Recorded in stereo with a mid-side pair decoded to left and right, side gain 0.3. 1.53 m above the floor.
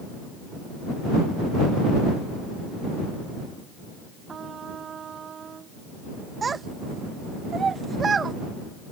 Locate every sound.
4.3 s a trumpet: 70° right
6.4 s a child speaking: 55° right